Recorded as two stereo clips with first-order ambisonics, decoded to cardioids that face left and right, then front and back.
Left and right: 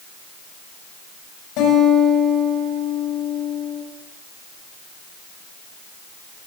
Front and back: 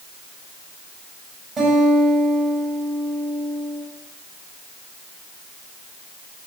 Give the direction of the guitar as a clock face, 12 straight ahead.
8 o'clock.